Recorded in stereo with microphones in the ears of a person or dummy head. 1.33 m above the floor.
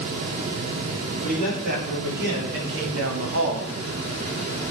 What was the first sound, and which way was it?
A man speaking, 45° right (ahead or behind).